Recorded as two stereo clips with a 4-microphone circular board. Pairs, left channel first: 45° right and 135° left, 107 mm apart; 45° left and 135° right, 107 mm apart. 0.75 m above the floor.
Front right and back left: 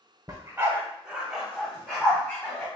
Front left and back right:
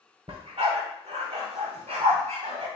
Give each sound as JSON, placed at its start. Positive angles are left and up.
{"t": 0.3, "sound": "a dog barking", "azimuth_deg": -170, "distance_m": 0.9}